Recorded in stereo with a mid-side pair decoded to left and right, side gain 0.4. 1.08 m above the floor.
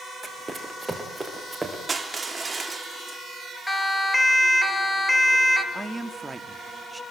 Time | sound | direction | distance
0.2 | running footsteps | 20° right | 6 m
1.9 | crushing | 35° right | 3 m
3.7 | a siren | 10° left | 4 m
5.7 | a man speaking | 20° right | 2 m